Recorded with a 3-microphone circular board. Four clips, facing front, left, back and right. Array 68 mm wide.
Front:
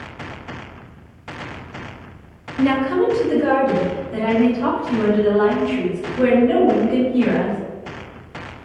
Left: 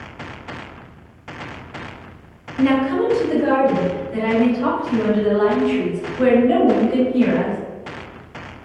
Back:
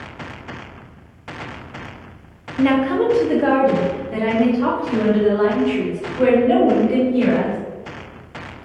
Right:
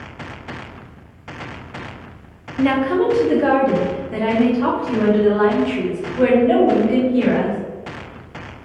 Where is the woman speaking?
160° right, 0.7 m; by 7.6 s 120° right, 3 m.